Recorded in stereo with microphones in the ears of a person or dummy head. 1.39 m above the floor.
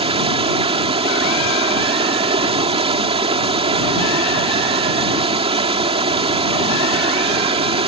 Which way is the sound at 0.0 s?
30° right (ahead or behind).